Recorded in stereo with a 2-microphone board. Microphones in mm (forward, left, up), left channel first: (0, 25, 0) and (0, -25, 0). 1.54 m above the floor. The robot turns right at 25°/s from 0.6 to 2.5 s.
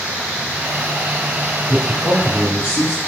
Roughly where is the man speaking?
Left.